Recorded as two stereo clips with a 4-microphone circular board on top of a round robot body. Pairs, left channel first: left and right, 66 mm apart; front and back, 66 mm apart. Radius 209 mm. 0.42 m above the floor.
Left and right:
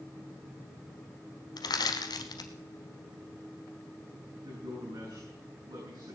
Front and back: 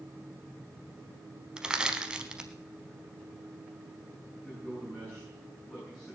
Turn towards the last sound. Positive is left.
turn(degrees=-80)